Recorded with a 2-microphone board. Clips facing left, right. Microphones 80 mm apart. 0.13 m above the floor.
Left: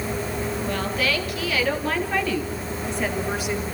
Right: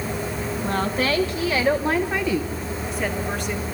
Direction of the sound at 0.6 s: 40° right (ahead or behind).